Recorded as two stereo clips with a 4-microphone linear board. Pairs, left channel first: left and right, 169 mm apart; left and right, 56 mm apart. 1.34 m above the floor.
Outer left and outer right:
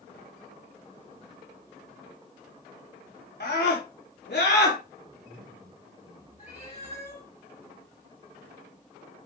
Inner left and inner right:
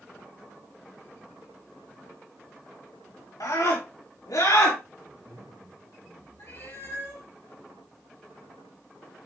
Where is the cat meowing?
40° left (ahead or behind), 5 m.